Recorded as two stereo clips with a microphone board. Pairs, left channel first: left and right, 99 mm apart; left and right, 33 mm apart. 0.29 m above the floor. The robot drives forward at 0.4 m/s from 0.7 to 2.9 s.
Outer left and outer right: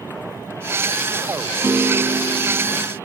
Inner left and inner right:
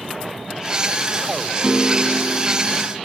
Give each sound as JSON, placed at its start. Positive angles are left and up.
{"t": 1.6, "sound": "a piano", "side_deg": -25, "distance_m": 0.6}